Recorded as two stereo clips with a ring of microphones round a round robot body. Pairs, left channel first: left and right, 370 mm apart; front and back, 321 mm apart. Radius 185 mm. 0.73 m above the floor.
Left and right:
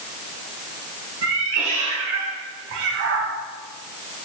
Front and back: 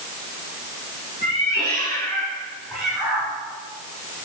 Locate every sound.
1.2 s a cat meowing: 75° right, 3.5 m; by 3.3 s 100° right, 3 m